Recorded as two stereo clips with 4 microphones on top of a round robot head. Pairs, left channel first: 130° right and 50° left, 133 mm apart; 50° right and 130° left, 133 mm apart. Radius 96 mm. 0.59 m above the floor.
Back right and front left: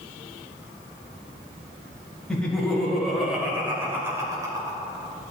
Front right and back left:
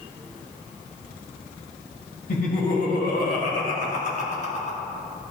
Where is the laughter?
50° right, 2.5 m; by 4.8 s 10° right, 2 m.